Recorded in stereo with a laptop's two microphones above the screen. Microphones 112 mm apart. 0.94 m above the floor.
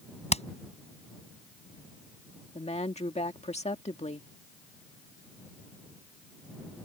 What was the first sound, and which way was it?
Hammering, 70° left (ahead or behind).